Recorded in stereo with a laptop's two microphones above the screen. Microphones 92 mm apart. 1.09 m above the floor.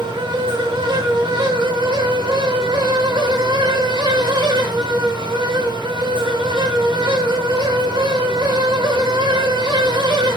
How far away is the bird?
I don't hear a bird.